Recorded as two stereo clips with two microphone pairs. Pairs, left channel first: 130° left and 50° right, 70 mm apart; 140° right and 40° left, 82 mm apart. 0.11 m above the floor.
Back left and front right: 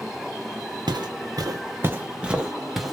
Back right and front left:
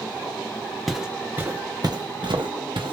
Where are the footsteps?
45° right, 0.9 m; by 2.9 s 40° left, 1.5 m.